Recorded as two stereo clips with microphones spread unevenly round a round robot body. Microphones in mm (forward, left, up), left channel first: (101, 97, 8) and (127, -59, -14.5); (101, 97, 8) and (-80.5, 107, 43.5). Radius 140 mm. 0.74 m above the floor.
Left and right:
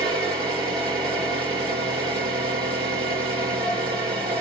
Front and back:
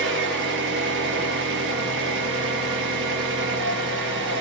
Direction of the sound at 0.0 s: 145° right.